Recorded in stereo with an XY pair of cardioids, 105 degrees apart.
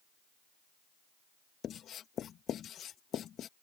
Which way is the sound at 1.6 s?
60° left.